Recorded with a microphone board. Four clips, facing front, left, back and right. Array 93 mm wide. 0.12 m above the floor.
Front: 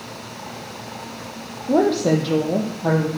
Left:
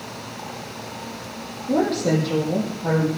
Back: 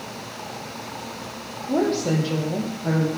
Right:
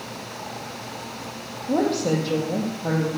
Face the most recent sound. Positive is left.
turn(degrees=0)